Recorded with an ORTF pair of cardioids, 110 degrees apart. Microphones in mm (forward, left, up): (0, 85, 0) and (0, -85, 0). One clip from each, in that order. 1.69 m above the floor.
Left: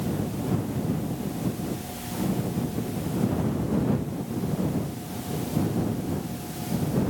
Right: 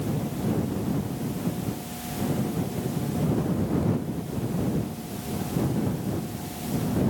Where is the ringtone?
No ringtone in this recording.